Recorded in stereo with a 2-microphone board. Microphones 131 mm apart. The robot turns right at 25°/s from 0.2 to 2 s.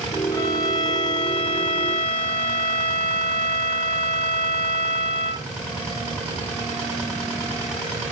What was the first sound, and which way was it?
A violin, 35° left.